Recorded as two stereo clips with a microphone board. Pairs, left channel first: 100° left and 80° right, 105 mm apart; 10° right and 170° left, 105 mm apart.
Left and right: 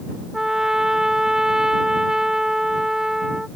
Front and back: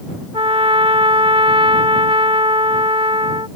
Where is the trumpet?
165° right.